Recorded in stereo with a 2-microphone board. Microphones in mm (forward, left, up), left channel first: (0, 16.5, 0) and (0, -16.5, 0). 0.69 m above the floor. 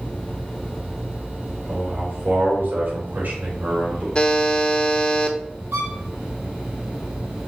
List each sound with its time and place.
1.7 s a man speaking: 65° right (ahead or behind), 3 m; by 4.0 s 45° right (ahead or behind), 4 m
4.2 s a buzzer: 30° left (ahead or behind), 0.9 m
5.7 s a violin: 70° right (ahead or behind), 3 m